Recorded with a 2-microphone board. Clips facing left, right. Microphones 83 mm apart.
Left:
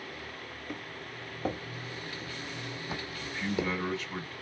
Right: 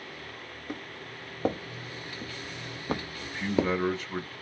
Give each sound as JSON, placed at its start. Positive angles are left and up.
{"t": 0.7, "sound": "footsteps", "side_deg": -25, "distance_m": 1.6}
{"t": 3.2, "sound": "a man speaking", "side_deg": -25, "distance_m": 0.8}